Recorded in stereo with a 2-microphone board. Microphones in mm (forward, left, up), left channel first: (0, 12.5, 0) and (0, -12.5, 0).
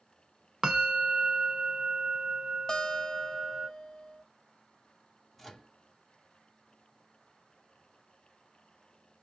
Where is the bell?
30° right (ahead or behind), 0.5 m.